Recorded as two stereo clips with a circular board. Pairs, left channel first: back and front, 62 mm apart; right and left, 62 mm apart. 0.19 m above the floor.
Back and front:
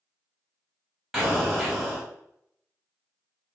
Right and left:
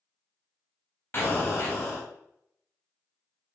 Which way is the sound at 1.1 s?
80° right.